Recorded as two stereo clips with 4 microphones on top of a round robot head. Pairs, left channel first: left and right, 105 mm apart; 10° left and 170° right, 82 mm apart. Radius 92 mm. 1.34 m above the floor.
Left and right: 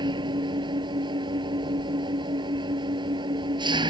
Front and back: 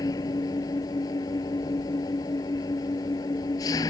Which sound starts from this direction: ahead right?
An engine running, at 0.0 s.